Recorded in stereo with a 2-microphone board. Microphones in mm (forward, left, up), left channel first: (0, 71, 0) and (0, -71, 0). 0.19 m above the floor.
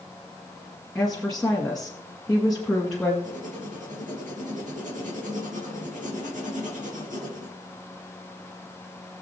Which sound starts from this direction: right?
Writing, at 3.2 s.